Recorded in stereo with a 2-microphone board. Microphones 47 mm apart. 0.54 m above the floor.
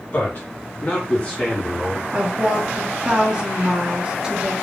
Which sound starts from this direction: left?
A man speaking, at 0.1 s.